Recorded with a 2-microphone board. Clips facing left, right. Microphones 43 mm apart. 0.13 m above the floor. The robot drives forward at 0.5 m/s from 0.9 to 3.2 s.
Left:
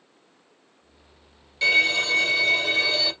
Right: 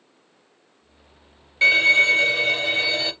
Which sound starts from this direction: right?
A violin, at 1.6 s.